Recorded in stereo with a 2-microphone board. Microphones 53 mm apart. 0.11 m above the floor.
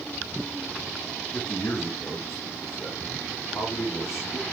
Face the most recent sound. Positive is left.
turn(degrees=65)  # may be behind; listen again after turning